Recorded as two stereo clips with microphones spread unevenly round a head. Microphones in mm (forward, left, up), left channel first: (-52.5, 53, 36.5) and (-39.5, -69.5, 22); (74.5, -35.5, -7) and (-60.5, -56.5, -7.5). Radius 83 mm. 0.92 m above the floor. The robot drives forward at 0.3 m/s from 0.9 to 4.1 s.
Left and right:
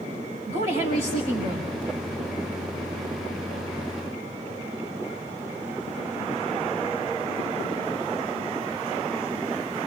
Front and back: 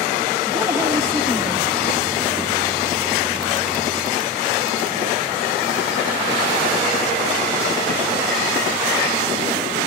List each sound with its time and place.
0.5 s a woman speaking: 105° right, 5 m; by 1.7 s 110° right, 5 m